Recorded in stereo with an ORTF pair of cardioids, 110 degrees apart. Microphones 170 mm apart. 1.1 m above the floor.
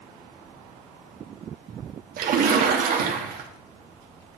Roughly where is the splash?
Ahead right.